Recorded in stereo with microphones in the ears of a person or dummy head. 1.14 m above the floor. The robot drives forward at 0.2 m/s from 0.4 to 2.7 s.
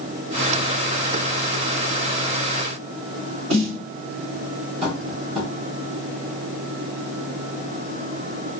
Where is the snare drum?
70° right (ahead or behind), 1.4 m.